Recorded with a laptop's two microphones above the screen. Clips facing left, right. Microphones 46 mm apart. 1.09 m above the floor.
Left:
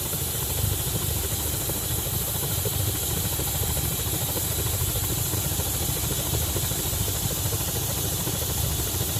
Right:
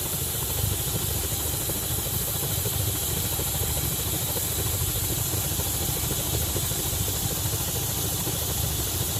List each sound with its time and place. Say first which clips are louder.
0.0 s a helicopter: left 1 dB; 15° left (ahead or behind); by 9.2 s 20° left (ahead or behind)